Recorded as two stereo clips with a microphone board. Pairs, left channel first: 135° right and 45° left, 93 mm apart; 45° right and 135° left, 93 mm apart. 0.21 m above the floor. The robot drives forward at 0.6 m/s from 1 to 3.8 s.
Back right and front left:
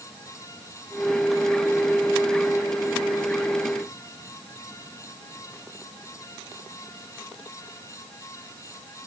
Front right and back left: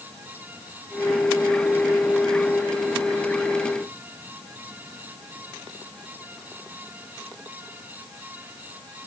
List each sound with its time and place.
Only background noise.